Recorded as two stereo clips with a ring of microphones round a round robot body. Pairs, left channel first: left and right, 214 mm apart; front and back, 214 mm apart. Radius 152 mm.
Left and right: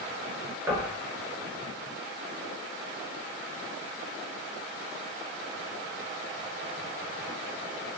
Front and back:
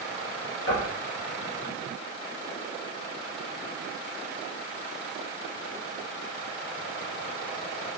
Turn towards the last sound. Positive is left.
turn(degrees=-10)